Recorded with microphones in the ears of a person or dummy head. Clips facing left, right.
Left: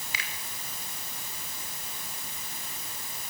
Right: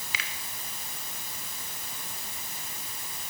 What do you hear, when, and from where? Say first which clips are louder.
0.1 s a finger snap: right 1 dB; 60° right (ahead or behind), 3 m